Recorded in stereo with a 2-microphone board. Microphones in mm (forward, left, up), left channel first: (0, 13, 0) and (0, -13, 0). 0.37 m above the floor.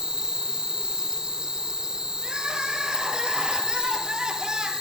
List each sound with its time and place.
0.0 s an insect: 25° right (ahead or behind), 0.8 m
2.2 s crying: 30° right (ahead or behind), 2 m